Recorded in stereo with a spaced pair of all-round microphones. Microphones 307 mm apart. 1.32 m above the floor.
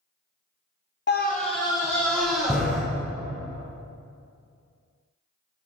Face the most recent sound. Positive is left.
turn(degrees=-5)  # may be behind; listen again after turning